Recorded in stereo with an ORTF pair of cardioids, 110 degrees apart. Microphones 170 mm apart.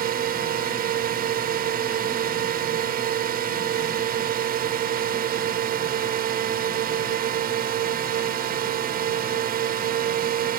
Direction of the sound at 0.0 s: 60° right.